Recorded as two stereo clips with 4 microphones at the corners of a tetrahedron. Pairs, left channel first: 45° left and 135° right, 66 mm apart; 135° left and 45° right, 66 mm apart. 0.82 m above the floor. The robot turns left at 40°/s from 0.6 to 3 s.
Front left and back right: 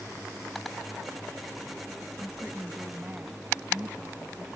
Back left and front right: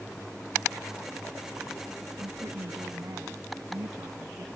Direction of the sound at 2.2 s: 35° right.